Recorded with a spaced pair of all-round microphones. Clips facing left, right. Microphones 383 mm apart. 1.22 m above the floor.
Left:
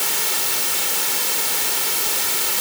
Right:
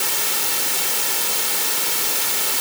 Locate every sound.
Only background noise.